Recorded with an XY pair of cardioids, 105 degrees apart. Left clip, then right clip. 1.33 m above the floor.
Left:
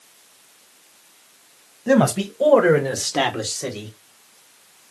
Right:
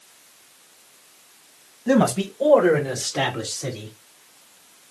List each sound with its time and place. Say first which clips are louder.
1.9 s a man speaking: left 2 dB; 25° left, 1.3 m; by 4.0 s 65° left, 2.5 m